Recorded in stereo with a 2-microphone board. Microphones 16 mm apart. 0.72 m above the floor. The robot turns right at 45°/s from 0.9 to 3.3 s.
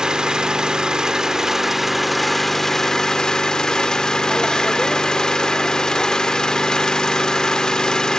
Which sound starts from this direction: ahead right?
An engine running, at 0.0 s.